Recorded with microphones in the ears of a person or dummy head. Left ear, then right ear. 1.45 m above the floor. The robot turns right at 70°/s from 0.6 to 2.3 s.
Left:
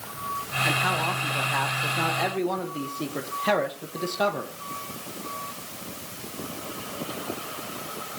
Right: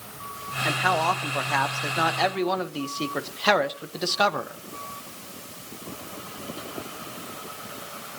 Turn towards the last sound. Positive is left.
turn(degrees=-45)